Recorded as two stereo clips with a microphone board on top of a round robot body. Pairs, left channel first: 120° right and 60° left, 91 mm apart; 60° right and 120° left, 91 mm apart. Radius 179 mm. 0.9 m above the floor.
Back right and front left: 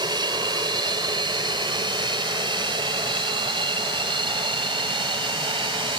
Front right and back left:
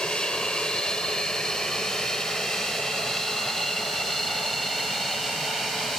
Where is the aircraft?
20° left; by 6.0 s 30° left.